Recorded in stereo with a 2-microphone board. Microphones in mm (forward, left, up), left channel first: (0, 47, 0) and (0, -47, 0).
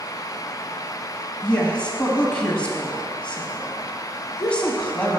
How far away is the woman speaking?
About 1.3 m.